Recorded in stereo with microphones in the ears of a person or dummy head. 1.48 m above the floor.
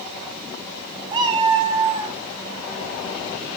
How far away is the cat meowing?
About 1.1 m.